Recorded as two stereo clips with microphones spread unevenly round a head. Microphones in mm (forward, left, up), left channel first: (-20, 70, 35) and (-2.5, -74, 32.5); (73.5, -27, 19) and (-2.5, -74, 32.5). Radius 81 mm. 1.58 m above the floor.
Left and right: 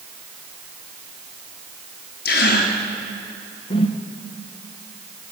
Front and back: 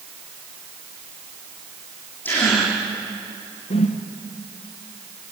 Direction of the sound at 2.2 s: 110° left.